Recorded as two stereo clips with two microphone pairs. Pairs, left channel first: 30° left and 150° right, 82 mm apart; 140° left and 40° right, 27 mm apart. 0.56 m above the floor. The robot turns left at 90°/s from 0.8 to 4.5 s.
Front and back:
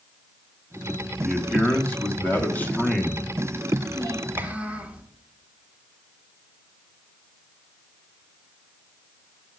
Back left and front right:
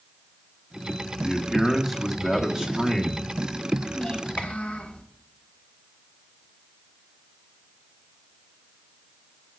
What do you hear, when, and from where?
1.2 s a man speaking: 120° left, 1.0 m; by 3.9 s 115° right, 1.0 m
4.0 s a child speaking: 170° right, 0.8 m; by 5.0 s 140° left, 0.8 m